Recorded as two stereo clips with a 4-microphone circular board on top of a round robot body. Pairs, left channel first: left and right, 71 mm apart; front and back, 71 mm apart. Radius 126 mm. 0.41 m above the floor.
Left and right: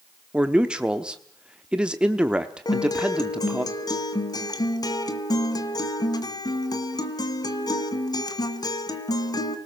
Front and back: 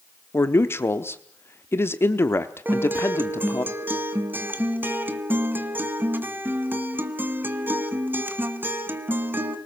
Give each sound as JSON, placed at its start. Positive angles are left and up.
{"t": 0.3, "sound": "a man speaking", "azimuth_deg": -20, "distance_m": 1.1}
{"t": 2.6, "sound": "a guitar", "azimuth_deg": 120, "distance_m": 2.5}